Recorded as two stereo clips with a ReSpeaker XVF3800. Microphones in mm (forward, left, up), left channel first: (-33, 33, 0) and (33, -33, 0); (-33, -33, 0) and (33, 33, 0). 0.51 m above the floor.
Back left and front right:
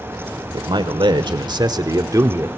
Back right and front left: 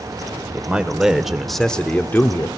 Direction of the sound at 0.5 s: 30° right.